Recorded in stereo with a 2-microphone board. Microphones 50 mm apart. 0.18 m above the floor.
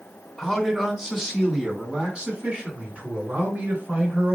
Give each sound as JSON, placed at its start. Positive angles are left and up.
{"t": 0.4, "sound": "a man speaking", "side_deg": 0, "distance_m": 2.0}